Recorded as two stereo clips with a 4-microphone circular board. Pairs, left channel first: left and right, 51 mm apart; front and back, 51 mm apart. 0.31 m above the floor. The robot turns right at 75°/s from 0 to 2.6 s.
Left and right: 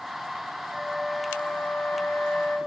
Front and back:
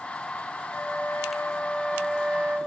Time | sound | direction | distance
0.7 | a flute | 10° right | 1.6 m